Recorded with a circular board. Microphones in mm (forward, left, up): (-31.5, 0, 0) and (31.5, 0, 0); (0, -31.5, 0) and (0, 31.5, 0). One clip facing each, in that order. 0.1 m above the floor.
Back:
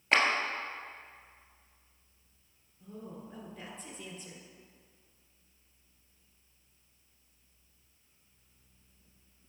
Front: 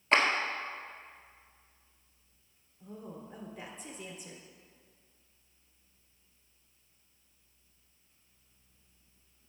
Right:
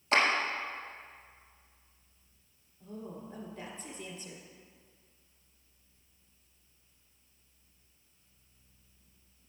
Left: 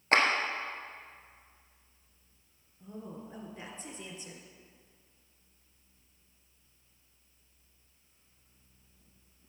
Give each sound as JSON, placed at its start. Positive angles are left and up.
{"t": 0.1, "sound": "a clap", "azimuth_deg": 95, "distance_m": 1.6}
{"t": 2.8, "sound": "a woman speaking", "azimuth_deg": 70, "distance_m": 1.6}